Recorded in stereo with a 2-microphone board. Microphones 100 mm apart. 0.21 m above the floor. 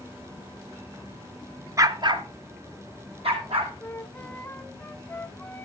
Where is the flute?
15° left (ahead or behind), 0.8 m.